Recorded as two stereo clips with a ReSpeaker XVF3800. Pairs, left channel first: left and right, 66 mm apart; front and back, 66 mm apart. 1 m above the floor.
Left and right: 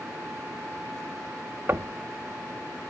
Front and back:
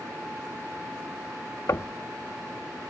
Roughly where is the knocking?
Ahead right.